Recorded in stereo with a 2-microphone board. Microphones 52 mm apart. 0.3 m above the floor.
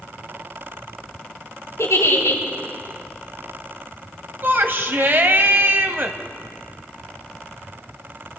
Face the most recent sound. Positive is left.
turn(degrees=-50)  # may be behind; listen again after turning